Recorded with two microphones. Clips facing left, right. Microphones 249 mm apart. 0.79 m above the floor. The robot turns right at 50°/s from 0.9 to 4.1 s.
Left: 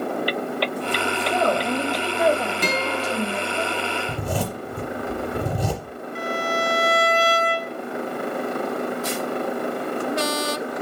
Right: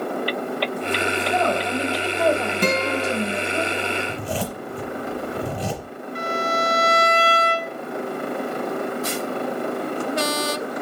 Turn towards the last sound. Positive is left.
turn(degrees=-50)  # may be behind; listen again after turning